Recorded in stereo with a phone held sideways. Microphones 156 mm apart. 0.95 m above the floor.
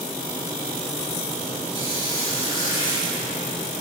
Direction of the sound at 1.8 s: 35° left (ahead or behind).